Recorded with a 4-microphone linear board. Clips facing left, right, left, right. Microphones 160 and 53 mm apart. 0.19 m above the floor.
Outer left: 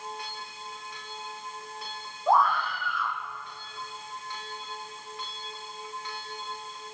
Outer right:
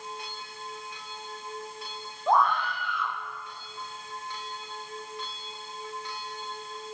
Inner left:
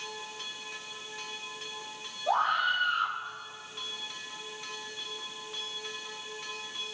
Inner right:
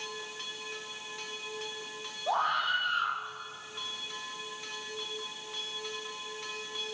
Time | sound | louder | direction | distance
2.3 | a scream | even, inner left 2 dB | 5° left (ahead or behind) | 8.5 m